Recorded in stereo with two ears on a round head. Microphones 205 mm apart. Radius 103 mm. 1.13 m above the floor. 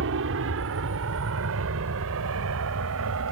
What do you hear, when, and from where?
0.0 s an aircraft: 60° right (ahead or behind); by 3.3 s 70° right (ahead or behind)